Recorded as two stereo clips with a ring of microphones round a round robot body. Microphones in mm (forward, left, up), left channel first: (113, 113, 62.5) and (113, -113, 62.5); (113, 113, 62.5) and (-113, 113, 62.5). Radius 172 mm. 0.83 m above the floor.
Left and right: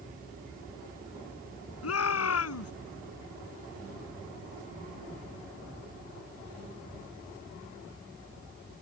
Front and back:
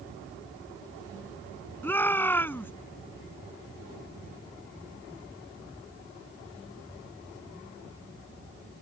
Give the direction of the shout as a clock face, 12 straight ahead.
9 o'clock.